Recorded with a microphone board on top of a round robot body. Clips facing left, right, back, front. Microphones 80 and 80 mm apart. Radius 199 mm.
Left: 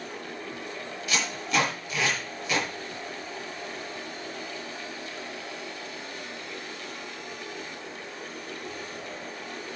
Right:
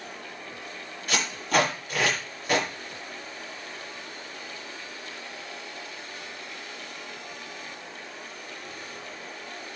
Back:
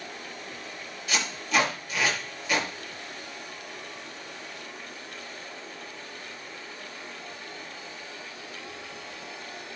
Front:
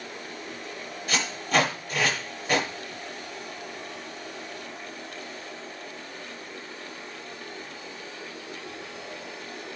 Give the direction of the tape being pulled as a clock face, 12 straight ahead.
2 o'clock.